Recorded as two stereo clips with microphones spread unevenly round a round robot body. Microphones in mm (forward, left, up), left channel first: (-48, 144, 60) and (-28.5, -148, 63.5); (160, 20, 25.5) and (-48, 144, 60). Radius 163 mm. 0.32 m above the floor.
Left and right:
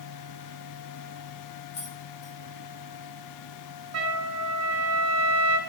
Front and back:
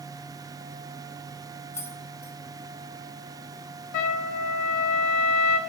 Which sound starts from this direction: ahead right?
A trumpet, at 3.9 s.